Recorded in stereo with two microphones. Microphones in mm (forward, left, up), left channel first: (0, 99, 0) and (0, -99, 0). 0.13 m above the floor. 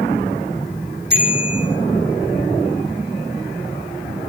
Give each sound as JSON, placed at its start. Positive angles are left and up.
{"t": 1.1, "sound": "a bicycle bell", "side_deg": -55, "distance_m": 4.0}